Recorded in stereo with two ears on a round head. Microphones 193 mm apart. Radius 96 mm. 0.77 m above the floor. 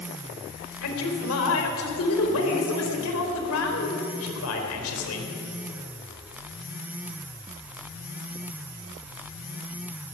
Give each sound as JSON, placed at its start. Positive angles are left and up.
{"t": 0.8, "sound": "a man speaking", "side_deg": 75, "distance_m": 4.0}